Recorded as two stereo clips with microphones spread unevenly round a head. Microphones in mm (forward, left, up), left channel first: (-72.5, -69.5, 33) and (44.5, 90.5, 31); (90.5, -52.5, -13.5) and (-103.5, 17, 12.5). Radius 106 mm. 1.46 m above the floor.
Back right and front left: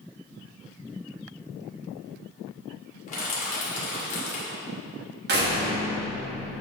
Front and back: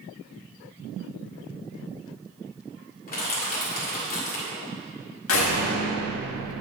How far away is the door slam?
About 1.6 m.